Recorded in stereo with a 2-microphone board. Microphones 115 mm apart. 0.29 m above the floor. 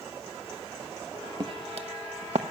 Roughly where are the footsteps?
Right.